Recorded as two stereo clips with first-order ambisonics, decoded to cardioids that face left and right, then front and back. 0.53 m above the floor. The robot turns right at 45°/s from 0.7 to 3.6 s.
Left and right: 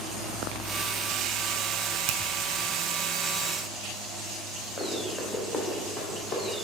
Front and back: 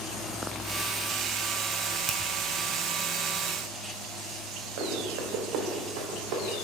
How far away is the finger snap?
About 1.6 m.